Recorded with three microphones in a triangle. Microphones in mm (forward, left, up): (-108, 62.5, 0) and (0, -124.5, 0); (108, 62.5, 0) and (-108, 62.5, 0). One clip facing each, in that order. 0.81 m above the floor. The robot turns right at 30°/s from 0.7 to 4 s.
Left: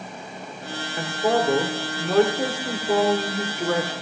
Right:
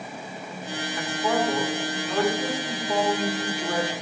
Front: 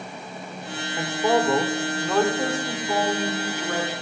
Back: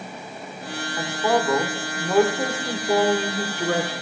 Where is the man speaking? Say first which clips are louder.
Left 4 dB, front 1 dB; 70° left, 3 m; by 3.9 s 155° left, 3 m.